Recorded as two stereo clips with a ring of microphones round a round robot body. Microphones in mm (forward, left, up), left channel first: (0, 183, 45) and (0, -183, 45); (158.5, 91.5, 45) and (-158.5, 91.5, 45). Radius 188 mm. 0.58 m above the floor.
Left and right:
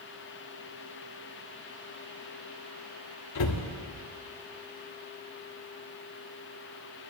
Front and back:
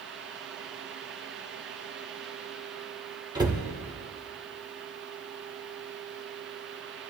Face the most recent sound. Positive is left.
turn(degrees=105)